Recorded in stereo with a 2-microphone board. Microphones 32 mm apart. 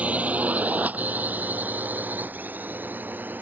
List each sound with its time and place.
0.0 s a drone: 45° right (ahead or behind); by 3.4 s 70° right (ahead or behind)